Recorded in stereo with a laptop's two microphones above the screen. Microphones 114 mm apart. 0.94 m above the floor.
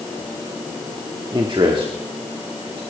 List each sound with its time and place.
1.3 s a man speaking: 45° right (ahead or behind), 1.9 m; by 2.8 s 50° right (ahead or behind), 3 m